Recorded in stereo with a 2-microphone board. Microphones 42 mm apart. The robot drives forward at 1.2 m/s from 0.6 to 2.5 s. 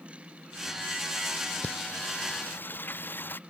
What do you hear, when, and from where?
1.6 s singing: 45° left (ahead or behind); by 3.4 s 50° left (ahead or behind)